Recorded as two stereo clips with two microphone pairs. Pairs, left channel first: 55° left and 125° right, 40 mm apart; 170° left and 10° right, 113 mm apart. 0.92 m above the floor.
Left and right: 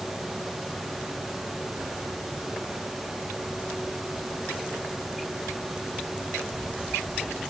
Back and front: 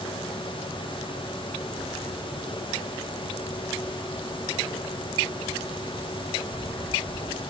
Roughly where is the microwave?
I don't hear a microwave.